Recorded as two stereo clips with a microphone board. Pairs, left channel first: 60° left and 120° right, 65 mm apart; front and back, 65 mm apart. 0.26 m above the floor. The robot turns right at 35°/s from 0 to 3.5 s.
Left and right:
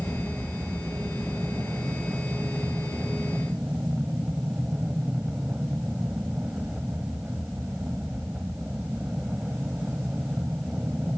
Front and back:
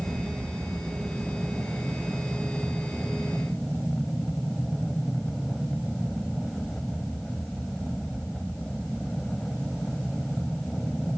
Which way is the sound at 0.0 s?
170° left.